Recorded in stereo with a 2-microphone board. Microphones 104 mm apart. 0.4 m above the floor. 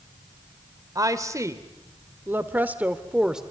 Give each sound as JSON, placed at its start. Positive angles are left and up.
{"t": 0.9, "sound": "a woman speaking", "side_deg": -35, "distance_m": 1.7}